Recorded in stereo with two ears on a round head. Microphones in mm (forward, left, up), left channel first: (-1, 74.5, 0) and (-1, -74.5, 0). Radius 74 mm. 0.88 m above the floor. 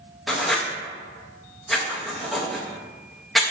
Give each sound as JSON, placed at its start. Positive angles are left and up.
{"t": 0.3, "sound": "writing", "side_deg": 0, "distance_m": 0.6}